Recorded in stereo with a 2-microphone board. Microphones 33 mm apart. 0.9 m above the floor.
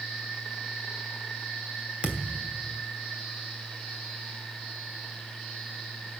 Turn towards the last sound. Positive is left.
turn(degrees=-30)  # may be behind; listen again after turning